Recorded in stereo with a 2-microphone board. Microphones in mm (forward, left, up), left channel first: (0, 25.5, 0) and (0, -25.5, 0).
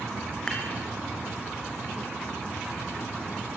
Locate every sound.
0.5 s dishes clattering: 15° left (ahead or behind), 5.5 m